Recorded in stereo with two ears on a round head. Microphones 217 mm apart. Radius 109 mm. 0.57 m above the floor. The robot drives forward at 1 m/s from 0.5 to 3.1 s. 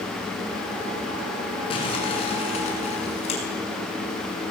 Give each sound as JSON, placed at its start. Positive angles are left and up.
{"t": 1.7, "sound": "crumpling", "side_deg": 25, "distance_m": 8.0}